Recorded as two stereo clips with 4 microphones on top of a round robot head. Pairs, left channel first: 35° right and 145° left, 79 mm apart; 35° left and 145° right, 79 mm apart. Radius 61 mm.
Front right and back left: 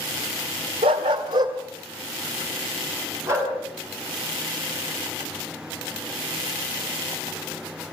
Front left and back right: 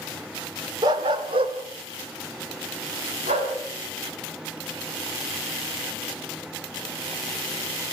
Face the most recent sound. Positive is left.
turn(degrees=-155)